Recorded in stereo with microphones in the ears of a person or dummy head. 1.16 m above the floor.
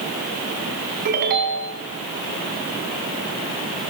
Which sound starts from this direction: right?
A ringtone, at 1.1 s.